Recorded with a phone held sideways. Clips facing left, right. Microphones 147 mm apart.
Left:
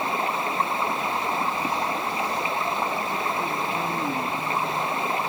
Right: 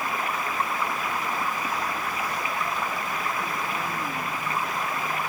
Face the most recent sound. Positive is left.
turn(degrees=25)  # may be behind; listen again after turning